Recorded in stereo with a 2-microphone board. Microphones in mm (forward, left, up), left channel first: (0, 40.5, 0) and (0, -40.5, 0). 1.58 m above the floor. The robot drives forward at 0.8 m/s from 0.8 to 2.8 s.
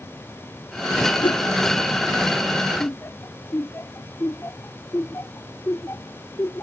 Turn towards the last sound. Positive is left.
turn(degrees=35)  # may be behind; listen again after turning